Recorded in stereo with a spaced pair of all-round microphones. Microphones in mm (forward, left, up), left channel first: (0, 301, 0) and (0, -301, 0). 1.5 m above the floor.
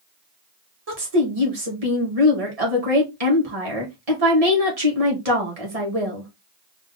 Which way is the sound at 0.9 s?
75° right (ahead or behind).